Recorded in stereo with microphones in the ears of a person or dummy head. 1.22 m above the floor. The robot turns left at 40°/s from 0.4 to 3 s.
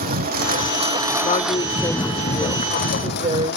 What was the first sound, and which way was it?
A lawn mower, 135° right.